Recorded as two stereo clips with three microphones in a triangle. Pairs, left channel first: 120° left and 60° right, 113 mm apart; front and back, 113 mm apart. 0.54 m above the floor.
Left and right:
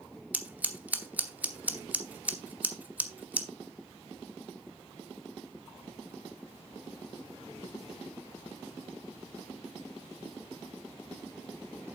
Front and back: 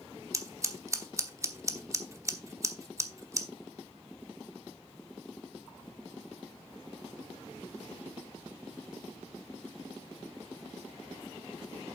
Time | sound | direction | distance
0.3 | scissors | 130° right | 1.0 m